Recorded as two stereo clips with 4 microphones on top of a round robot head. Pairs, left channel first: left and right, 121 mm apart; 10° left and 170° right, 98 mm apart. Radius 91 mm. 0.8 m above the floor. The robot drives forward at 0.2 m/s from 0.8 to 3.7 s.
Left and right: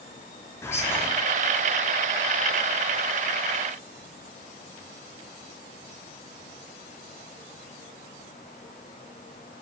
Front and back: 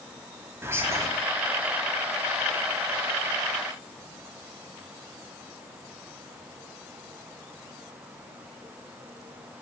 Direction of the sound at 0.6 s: 145° left.